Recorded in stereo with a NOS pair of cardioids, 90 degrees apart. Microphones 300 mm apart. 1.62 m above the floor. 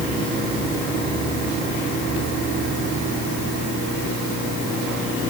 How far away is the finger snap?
I don't hear a finger snap.